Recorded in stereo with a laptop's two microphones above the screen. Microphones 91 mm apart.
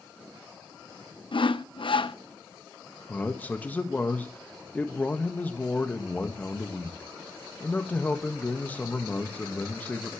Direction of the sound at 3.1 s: 20° left (ahead or behind).